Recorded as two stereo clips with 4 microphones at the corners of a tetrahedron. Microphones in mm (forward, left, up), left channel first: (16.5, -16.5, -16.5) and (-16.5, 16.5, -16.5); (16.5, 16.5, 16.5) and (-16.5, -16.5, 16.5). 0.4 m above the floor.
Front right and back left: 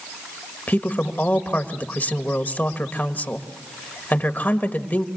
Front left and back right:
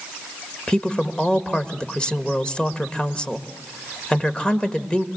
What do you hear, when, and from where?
0.7 s a woman speaking: 15° right, 1.5 m